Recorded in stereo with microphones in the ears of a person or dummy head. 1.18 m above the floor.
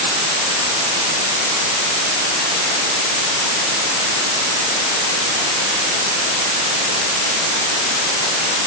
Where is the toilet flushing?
I don't hear a toilet flushing.